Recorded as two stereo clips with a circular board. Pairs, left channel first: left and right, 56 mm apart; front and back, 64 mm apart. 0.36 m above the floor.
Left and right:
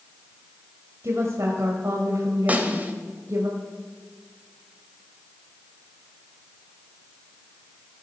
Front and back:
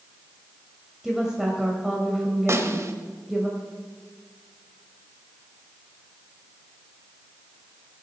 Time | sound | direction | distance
1.0 | a woman speaking | 95° right | 1.7 m
2.5 | a snare drum | 145° right | 1.2 m